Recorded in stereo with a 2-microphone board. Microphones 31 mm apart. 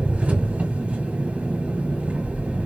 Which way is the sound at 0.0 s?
45° right (ahead or behind).